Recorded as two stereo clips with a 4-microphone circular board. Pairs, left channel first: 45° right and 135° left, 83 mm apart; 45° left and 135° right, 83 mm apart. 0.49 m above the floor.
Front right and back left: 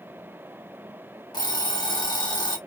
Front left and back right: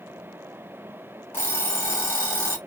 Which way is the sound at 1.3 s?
15° right.